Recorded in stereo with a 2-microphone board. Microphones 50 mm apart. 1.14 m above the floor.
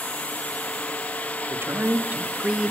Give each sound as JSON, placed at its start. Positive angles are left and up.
{"t": 1.5, "sound": "a man speaking", "side_deg": -50, "distance_m": 2.0}